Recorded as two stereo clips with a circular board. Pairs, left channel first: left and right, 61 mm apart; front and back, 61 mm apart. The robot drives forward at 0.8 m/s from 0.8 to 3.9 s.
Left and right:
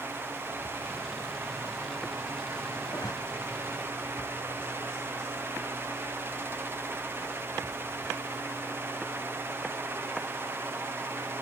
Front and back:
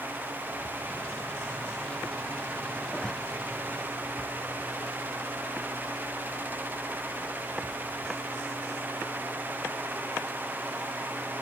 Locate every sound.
2.9 s a zipper: 80° left